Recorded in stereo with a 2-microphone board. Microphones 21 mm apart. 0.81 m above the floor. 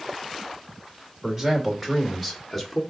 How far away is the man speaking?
About 2.5 m.